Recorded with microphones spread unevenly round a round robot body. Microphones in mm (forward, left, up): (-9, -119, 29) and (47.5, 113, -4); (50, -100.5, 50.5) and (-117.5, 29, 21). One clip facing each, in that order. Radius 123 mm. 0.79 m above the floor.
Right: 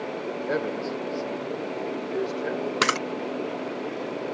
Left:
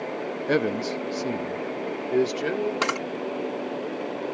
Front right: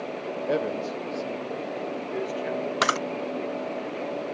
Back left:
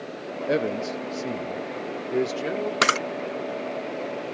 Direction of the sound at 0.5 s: 85° left.